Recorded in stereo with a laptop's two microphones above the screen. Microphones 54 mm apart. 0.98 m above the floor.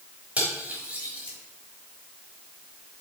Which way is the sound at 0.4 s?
20° right (ahead or behind).